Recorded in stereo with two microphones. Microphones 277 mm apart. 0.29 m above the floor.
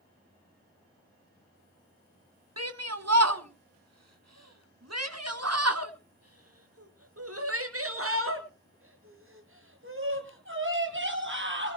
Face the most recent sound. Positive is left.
turn(degrees=-45)  # may be behind; listen again after turning